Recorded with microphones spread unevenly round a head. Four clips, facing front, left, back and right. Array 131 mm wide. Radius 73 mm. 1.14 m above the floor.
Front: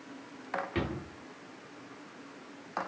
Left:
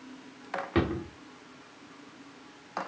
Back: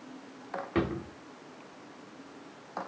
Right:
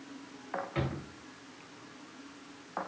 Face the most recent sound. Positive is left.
turn(degrees=110)